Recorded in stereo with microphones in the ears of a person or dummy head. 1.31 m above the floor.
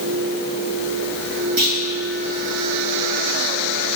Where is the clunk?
45° right (ahead or behind), 1.5 m.